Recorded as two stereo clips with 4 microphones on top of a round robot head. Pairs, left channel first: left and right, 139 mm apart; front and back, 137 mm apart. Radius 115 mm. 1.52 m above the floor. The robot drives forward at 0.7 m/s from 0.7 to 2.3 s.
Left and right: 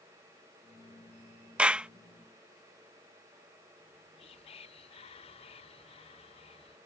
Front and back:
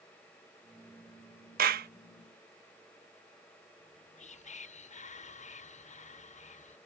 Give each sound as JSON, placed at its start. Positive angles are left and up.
{"t": 1.6, "sound": "a clap", "azimuth_deg": -170}
{"t": 3.8, "sound": "whispering", "azimuth_deg": 35}